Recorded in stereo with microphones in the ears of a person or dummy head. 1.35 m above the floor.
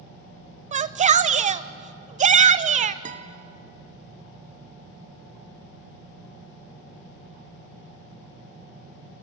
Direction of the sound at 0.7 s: 35° right (ahead or behind).